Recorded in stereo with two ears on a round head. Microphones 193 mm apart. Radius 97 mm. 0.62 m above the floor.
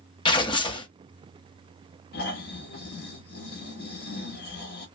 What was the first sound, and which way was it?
Tearing paper, 20° left (ahead or behind).